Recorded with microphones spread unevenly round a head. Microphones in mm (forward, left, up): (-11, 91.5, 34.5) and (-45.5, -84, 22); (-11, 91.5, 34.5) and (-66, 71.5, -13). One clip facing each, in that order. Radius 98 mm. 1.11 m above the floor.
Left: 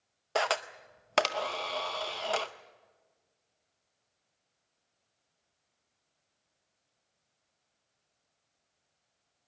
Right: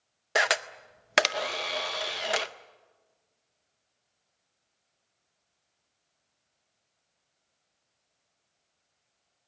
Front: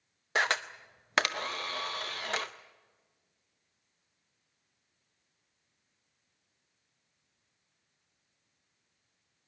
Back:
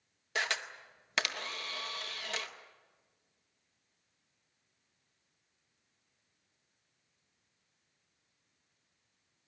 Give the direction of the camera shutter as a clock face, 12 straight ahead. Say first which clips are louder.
Right 2 dB, front 6 dB; 1 o'clock.